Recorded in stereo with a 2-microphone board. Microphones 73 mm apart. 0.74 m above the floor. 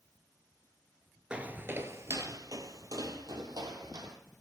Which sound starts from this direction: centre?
Footsteps, at 1.3 s.